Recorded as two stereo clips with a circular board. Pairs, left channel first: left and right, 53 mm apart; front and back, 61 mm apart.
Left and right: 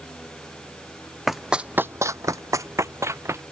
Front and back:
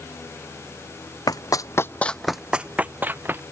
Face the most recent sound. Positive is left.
turn(degrees=-125)